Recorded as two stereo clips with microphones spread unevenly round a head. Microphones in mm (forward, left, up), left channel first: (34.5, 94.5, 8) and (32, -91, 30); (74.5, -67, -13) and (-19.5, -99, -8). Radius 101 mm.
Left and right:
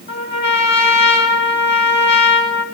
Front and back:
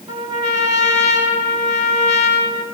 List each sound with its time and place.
0.1 s a trumpet: 135° left, 3 m